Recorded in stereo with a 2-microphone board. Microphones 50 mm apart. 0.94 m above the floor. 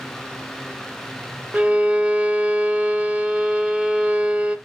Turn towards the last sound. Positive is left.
turn(degrees=-25)  # may be behind; listen again after turning